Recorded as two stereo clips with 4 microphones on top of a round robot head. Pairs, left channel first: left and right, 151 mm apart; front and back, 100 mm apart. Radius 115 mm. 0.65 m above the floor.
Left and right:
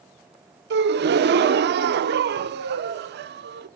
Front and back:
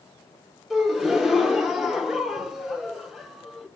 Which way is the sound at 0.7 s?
90° right.